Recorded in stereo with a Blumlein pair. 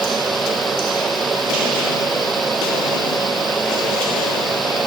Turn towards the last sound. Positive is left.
turn(degrees=-15)